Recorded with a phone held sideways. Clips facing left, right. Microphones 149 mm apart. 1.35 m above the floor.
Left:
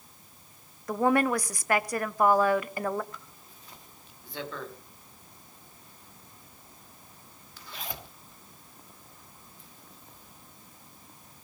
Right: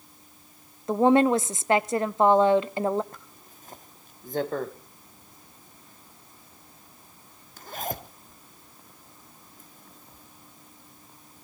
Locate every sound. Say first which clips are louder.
0.9 s a woman speaking: right 5 dB; 25° right (ahead or behind), 0.7 m
3.1 s a zipper: even; 45° right (ahead or behind), 1.2 m